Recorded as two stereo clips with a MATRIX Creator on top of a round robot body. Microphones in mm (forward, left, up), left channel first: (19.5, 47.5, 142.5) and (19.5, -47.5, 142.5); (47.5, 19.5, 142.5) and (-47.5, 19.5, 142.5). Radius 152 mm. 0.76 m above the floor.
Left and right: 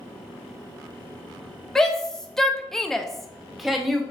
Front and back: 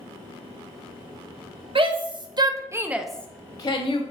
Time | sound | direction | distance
1.8 | a shout | 175° left | 1.2 m